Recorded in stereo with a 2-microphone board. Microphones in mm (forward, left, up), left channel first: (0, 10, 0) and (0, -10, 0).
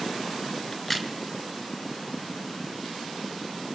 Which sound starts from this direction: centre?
A crack, at 0.7 s.